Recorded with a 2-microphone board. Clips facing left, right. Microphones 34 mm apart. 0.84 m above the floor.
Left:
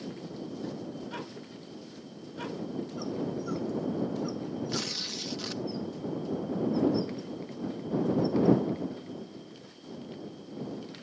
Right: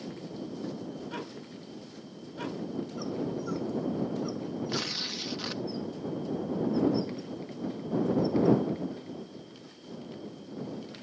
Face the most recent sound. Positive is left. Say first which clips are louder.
# right 1 dB
turn(degrees=-20)  # may be behind; listen again after turning